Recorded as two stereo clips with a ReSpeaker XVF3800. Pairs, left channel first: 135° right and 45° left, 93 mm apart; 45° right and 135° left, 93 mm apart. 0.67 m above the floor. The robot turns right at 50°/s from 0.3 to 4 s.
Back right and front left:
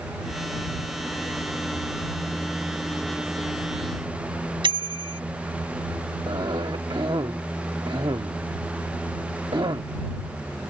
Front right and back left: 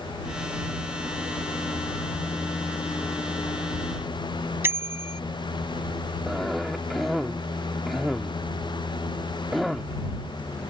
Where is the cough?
45° left.